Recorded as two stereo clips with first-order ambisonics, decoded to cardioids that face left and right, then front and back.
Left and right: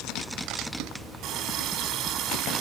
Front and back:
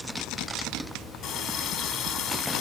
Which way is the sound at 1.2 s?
45° right.